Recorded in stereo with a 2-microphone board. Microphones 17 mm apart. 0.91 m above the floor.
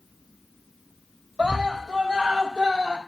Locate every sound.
1.4 s a scream: 75° right (ahead or behind), 5 m